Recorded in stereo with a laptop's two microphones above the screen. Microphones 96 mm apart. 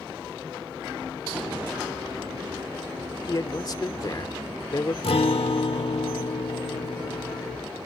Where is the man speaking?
40° left (ahead or behind).